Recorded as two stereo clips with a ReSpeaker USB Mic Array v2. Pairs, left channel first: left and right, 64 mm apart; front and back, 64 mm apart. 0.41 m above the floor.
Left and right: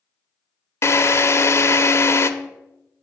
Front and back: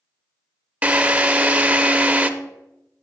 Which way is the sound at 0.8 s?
115° left.